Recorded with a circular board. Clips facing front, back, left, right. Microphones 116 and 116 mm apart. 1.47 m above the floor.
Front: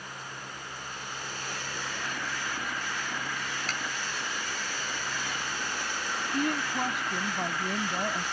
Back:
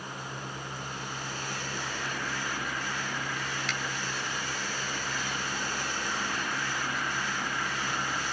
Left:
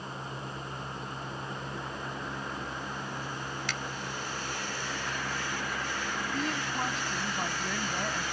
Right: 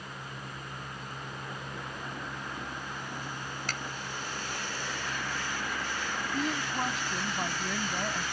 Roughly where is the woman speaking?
Ahead.